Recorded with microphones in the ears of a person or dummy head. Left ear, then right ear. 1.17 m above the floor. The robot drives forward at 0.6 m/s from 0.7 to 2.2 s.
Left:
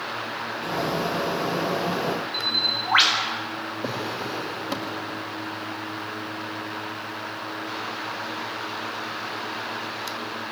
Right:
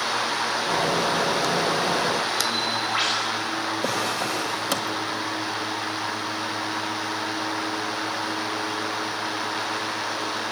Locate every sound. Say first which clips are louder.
2.3 s a bird: even; 50° left (ahead or behind), 4.5 m
3.8 s a drawer: right 3 dB; 45° right (ahead or behind), 1.6 m